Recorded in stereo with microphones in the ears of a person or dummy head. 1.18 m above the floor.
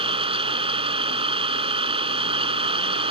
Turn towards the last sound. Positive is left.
turn(degrees=-25)  # may be behind; listen again after turning